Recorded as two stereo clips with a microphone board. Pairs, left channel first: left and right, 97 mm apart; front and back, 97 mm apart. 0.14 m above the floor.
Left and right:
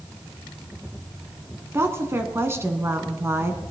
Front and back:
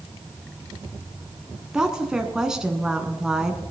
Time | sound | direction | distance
1.7 | a woman speaking | 105° right | 1.1 m